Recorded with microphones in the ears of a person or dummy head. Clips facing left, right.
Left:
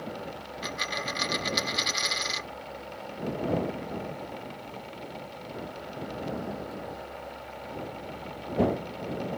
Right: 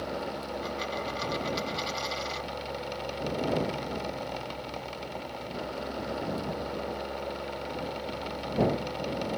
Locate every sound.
0.6 s a dropped coin: 30° left (ahead or behind)